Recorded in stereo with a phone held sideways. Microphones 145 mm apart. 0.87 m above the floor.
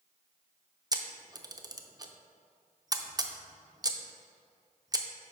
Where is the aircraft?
I don't hear an aircraft.